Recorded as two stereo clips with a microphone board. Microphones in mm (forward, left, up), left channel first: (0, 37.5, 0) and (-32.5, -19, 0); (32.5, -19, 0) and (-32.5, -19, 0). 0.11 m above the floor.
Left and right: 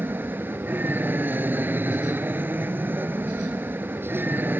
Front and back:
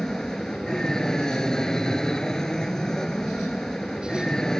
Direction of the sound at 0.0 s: 75° right.